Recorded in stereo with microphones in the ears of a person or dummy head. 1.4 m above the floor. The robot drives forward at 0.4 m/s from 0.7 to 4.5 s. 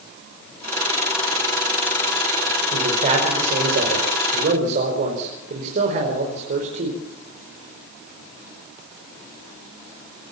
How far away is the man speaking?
About 5 m.